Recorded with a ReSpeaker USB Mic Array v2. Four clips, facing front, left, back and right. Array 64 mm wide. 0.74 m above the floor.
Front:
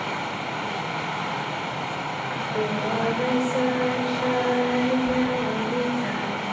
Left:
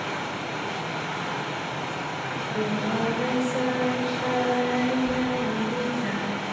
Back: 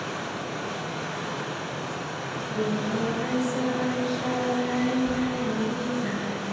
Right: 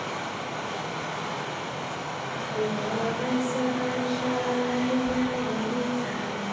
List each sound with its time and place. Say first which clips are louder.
0.0 s running water: left 2 dB, front 3 dB; 10° left, 2.5 m
2.3 s singing: even, front 1 dB; straight ahead, 2.5 m